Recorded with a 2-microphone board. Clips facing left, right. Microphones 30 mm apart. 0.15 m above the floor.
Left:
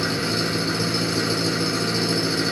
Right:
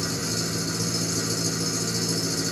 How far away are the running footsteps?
I don't hear running footsteps.